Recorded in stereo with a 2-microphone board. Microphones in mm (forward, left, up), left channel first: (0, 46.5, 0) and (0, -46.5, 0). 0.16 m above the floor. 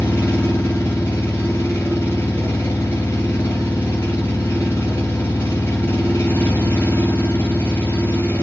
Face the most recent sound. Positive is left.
turn(degrees=30)  # may be behind; listen again after turning